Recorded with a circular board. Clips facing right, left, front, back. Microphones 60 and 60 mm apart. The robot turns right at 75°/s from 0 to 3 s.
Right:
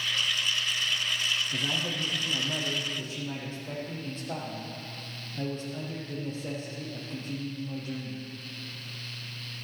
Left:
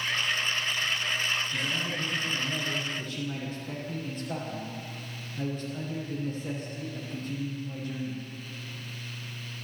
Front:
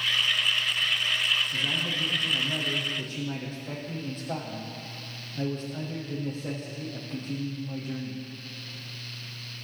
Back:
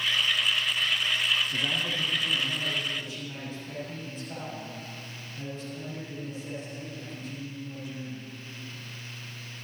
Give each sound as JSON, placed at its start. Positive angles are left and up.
{"t": 1.5, "sound": "a man speaking", "azimuth_deg": -145, "distance_m": 6.5}